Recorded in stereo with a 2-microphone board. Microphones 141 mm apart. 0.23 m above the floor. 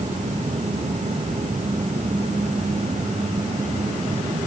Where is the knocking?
No knocking in this recording.